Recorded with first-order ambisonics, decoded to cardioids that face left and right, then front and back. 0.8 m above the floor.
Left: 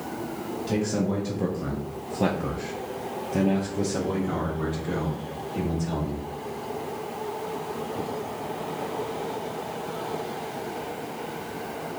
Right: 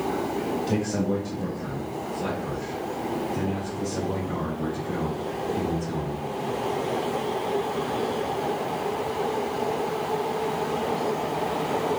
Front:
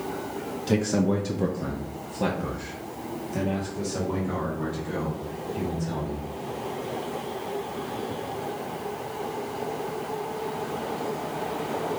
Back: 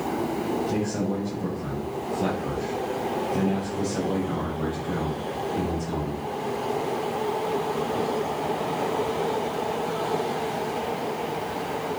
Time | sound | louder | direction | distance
0.7 | a man speaking | right 1 dB, front 2 dB | 10° right | 0.8 m